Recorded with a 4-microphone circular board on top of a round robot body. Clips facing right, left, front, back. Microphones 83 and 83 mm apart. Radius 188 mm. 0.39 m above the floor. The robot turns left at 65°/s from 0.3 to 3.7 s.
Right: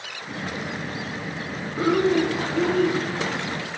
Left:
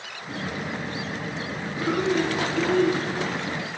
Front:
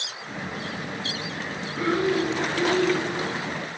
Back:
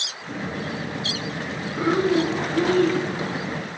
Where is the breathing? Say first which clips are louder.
Right 4 dB, back 3 dB; 110° right, 2 m; by 3.0 s 165° left, 2 m.